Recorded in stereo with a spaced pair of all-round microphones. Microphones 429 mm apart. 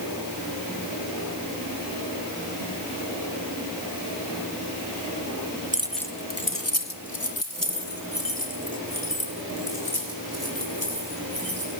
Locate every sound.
5.7 s keys jangling: 20° right (ahead or behind), 0.9 m; by 11.7 s 60° left (ahead or behind), 9 m